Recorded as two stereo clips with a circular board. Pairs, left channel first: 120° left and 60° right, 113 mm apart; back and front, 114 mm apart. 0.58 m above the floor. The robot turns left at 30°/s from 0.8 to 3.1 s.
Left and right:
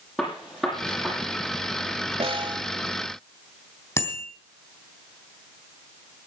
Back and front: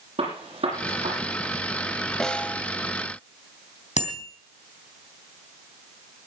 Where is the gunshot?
30° left, 6 m; by 1.2 s 15° left, 6 m.